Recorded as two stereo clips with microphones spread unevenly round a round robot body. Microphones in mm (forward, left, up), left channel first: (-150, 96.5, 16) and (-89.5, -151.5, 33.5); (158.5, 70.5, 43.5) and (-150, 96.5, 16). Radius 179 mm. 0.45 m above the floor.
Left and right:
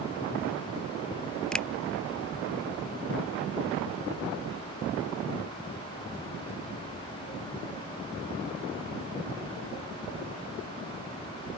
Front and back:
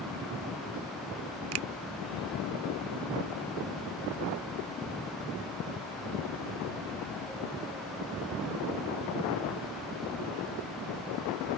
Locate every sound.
1.5 s a finger snap: 175° right